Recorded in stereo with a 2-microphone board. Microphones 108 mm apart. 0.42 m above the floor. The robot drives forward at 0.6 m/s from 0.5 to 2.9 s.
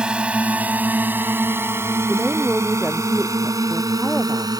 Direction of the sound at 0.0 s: 10° right (ahead or behind).